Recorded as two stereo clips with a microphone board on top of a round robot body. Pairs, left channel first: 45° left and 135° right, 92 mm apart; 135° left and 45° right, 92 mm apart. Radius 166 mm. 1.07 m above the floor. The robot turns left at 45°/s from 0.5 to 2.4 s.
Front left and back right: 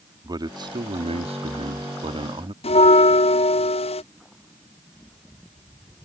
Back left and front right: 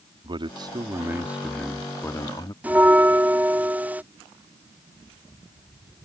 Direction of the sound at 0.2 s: 85° right.